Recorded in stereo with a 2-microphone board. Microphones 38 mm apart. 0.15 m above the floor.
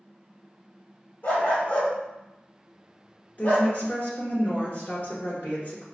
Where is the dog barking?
60° left (ahead or behind), 1.7 m.